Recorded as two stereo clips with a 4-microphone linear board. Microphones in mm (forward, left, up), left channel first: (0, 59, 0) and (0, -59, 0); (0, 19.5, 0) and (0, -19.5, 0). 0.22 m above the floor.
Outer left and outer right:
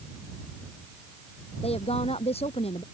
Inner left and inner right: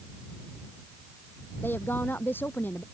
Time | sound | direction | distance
1.6 | a woman speaking | 60° left (ahead or behind) | ?